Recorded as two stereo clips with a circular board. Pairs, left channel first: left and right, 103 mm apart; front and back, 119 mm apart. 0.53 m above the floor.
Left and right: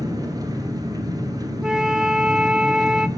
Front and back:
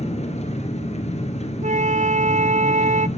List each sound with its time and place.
0.0 s an engine running: 35° right, 4 m
1.6 s a flute: 170° right, 0.9 m